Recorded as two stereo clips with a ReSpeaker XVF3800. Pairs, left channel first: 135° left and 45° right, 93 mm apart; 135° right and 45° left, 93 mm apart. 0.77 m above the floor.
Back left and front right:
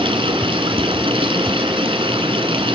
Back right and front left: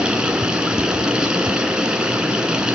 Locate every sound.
0.0 s running water: 35° right, 1.9 m